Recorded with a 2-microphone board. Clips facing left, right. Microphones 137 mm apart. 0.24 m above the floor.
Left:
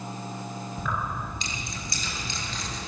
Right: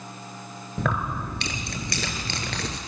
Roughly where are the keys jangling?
Right.